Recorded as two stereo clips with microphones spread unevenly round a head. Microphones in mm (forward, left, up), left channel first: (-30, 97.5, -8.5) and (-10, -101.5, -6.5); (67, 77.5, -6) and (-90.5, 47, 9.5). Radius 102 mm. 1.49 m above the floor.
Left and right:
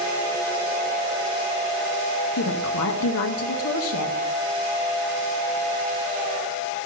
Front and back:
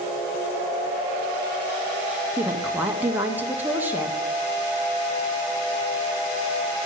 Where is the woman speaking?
110° left, 0.7 m.